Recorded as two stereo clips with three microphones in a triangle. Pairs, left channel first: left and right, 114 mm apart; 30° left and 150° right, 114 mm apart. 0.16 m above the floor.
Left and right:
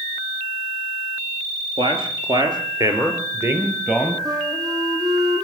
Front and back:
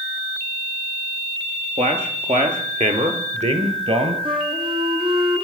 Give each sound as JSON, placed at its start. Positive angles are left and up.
{"t": 1.8, "sound": "a man speaking", "azimuth_deg": -130, "distance_m": 4.5}
{"t": 4.2, "sound": "a flute", "azimuth_deg": -135, "distance_m": 2.5}